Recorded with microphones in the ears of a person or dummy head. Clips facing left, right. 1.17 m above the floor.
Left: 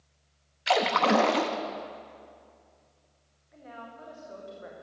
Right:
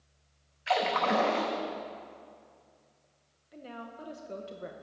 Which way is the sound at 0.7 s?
50° left (ahead or behind).